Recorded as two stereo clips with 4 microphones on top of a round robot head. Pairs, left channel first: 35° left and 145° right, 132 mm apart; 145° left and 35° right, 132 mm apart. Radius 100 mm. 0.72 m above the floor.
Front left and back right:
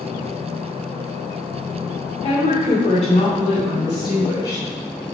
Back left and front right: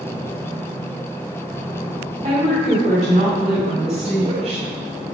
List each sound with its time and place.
2.2 s a woman speaking: straight ahead, 3 m; by 4.7 s 25° right, 1.2 m